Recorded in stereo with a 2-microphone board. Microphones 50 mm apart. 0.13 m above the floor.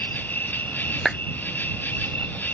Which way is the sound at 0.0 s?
40° left (ahead or behind).